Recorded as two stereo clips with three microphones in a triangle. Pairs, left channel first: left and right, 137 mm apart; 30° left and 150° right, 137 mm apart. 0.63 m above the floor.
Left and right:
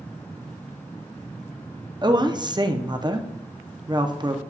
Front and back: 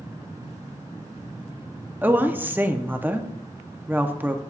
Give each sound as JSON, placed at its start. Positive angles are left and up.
{"t": 2.0, "sound": "a woman speaking", "azimuth_deg": -85, "distance_m": 0.6}